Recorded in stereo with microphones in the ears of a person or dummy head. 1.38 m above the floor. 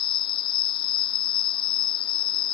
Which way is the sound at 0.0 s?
30° left (ahead or behind).